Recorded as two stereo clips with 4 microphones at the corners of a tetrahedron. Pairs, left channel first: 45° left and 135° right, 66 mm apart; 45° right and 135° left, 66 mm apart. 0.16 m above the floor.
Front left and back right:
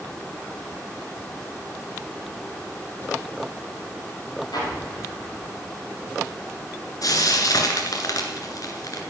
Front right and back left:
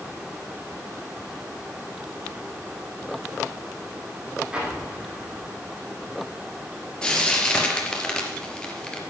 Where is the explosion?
55° left, 5.5 m.